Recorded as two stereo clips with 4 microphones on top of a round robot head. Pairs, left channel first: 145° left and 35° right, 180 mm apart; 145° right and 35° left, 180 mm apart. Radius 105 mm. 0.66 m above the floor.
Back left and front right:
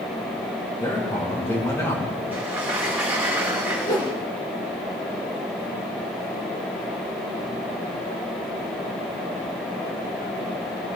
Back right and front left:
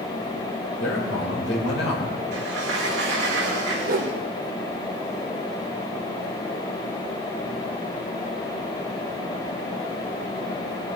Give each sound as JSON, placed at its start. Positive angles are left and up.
{"t": 0.8, "sound": "a man speaking", "azimuth_deg": -140, "distance_m": 3.0}
{"t": 2.3, "sound": "a sliding door", "azimuth_deg": 45, "distance_m": 3.5}
{"t": 3.9, "sound": "a whoosh", "azimuth_deg": 75, "distance_m": 1.9}